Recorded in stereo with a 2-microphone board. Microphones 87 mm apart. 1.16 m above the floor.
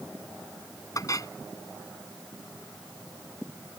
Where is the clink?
40° left (ahead or behind).